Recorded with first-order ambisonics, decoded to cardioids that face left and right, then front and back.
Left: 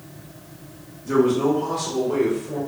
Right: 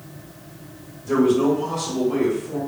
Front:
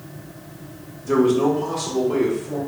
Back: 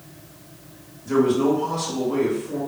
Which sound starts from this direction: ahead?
A man speaking, at 1.0 s.